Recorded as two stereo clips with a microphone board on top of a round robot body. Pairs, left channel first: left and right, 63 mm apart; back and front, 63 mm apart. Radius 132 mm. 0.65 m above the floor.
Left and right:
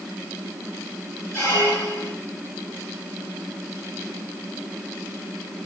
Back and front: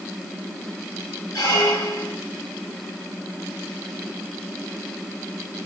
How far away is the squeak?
About 1.8 m.